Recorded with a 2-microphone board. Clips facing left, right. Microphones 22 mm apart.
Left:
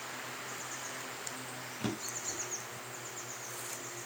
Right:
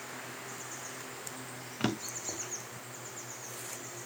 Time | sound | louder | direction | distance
1.8 | a drawer | right 4 dB | 40° right (ahead or behind) | 0.9 m